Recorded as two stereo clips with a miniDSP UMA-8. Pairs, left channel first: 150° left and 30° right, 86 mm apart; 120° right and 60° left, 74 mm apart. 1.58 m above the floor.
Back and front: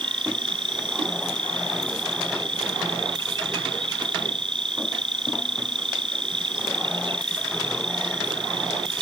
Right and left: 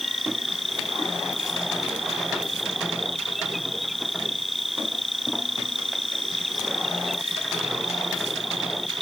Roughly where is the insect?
Ahead right.